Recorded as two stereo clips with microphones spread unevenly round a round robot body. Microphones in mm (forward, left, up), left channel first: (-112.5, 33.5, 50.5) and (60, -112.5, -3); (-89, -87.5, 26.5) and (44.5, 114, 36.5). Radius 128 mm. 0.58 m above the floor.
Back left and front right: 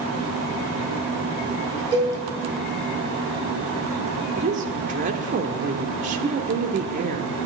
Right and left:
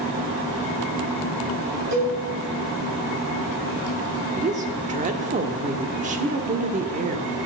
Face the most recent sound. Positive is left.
turn(degrees=0)